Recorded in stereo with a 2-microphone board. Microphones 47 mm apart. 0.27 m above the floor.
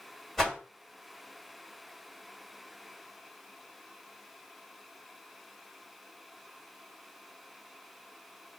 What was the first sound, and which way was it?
A whoosh, centre (ahead or behind).